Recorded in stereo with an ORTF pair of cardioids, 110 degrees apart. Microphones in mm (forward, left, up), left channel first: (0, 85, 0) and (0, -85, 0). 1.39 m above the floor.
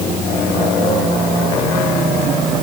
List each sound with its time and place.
Only background noise.